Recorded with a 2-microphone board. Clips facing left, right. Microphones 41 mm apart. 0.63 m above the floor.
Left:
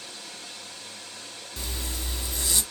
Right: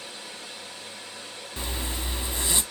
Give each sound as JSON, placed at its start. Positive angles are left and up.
{"t": 0.0, "sound": "running water", "side_deg": -20, "distance_m": 1.0}
{"t": 1.6, "sound": "a zipper", "side_deg": -30, "distance_m": 0.9}